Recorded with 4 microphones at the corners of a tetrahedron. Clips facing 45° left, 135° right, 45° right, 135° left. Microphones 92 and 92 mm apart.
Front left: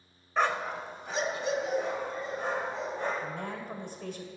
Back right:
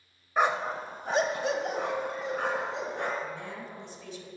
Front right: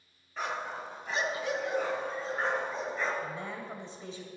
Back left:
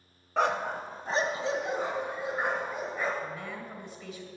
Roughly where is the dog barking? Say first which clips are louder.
Back right 2 dB, back left 8 dB; behind left.